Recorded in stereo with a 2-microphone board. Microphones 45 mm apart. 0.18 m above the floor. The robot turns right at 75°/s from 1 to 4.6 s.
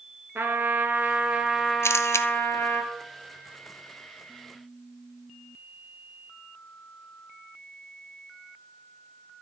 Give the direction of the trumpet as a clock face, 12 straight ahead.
2 o'clock.